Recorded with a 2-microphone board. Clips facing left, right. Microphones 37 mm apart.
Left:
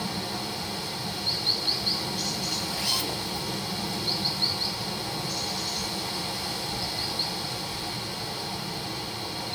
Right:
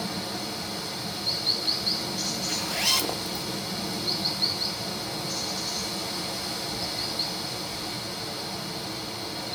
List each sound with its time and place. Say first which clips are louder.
0.0 s running water: even; 5° left (ahead or behind), 1.7 m
2.5 s a zipper: right 6 dB; 75° right (ahead or behind), 0.5 m